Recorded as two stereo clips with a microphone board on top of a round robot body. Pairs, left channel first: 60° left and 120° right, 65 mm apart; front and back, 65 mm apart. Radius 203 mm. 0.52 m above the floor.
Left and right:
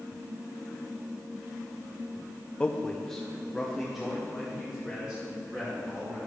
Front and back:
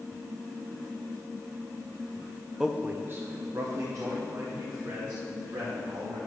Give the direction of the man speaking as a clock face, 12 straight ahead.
8 o'clock.